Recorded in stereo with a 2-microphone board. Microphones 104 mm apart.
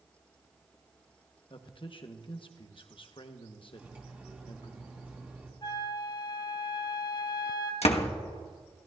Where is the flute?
50° left (ahead or behind), 1.4 m.